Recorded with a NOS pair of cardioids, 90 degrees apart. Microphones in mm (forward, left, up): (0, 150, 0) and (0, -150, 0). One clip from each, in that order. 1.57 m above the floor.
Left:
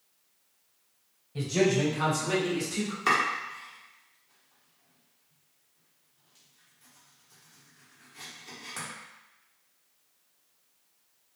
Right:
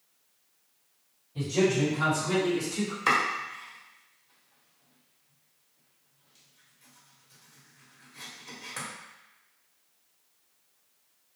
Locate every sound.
1.4 s a man speaking: 45° left, 1.8 m; by 3.0 s 20° left, 1.3 m
3.1 s chopping: straight ahead, 1.3 m